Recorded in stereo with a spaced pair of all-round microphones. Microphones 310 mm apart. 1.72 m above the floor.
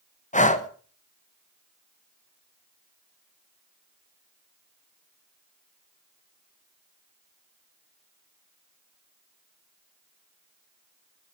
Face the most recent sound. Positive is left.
turn(degrees=25)  # may be behind; listen again after turning